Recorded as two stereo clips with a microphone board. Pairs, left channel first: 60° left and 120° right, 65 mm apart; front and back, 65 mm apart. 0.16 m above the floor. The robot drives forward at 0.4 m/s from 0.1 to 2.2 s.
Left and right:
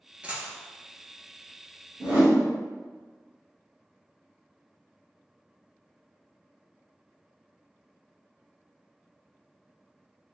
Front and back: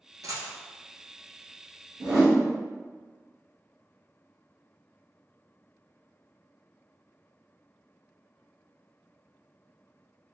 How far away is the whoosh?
About 1.4 m.